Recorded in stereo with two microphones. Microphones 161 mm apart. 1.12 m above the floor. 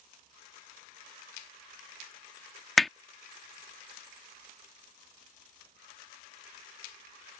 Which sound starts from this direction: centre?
Hammering, at 2.8 s.